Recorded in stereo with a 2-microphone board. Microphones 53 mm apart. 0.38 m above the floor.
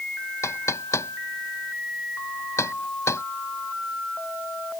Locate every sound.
0.4 s knocking: 65° left (ahead or behind)